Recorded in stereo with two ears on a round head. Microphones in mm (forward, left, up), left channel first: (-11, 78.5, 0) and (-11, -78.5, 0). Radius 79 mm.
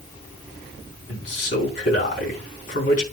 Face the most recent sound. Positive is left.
turn(degrees=45)  # may be behind; listen again after turning